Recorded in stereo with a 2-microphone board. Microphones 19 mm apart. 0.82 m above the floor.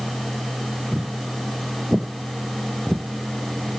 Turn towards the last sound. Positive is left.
turn(degrees=-10)  # may be behind; listen again after turning